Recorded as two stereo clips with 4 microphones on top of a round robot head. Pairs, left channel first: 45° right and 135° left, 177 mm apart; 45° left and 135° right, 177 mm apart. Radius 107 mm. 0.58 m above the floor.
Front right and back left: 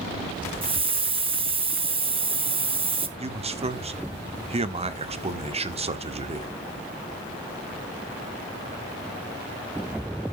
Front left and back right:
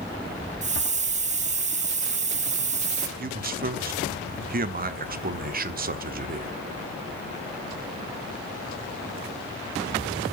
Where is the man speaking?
170° right, 1.2 m.